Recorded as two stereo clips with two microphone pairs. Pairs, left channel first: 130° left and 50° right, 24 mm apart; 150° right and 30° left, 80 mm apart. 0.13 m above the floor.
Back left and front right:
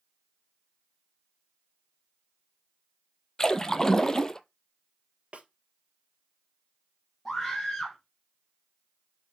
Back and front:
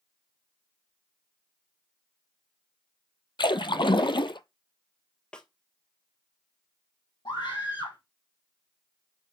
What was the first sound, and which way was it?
A splash, 160° right.